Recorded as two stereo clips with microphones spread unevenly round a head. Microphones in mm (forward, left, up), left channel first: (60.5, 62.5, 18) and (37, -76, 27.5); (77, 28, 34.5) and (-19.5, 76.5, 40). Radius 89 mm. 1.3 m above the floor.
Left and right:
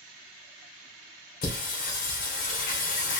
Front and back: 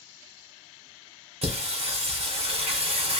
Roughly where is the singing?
Behind left.